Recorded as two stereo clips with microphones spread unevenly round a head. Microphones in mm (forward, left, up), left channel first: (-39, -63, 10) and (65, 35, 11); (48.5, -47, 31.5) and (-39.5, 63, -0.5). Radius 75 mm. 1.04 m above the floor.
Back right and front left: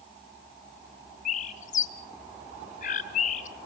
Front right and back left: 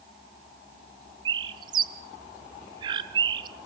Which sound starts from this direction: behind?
A bird, at 1.2 s.